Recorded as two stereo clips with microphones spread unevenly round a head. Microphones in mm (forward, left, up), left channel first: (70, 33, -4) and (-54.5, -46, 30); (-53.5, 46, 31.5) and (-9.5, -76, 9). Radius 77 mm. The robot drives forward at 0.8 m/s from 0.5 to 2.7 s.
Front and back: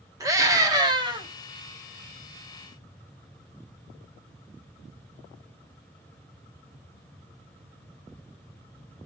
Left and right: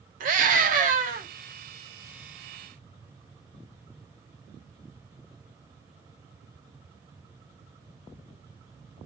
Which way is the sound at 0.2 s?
80° right.